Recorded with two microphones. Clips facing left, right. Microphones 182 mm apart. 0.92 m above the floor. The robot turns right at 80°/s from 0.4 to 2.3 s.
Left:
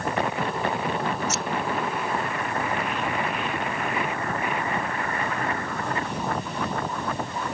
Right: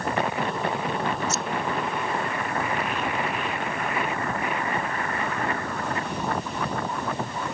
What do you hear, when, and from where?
1.3 s scissors: 85° left; by 1.4 s 80° left